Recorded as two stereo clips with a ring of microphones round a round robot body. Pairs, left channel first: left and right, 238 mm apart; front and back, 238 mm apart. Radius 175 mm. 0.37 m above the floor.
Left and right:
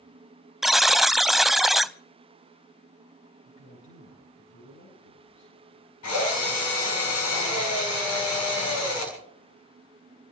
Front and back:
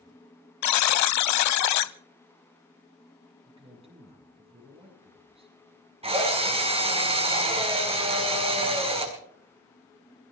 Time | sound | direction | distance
0.6 | a buzzer | straight ahead | 0.6 m
3.5 | a man speaking | 115° left | 8.5 m
6.0 | a drill | 115° left | 5 m